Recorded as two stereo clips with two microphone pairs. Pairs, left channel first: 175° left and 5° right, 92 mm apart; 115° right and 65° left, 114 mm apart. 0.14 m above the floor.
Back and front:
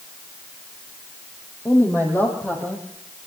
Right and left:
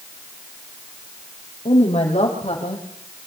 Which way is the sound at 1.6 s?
120° right.